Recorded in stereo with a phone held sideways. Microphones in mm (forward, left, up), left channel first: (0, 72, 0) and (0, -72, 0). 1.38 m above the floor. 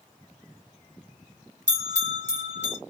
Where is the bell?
55° right (ahead or behind), 1.4 m.